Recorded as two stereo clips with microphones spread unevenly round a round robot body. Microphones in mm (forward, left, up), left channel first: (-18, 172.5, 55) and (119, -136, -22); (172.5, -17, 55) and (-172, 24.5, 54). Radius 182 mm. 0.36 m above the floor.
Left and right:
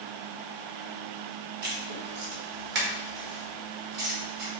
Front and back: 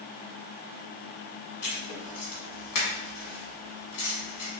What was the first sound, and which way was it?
Writing, 25° right.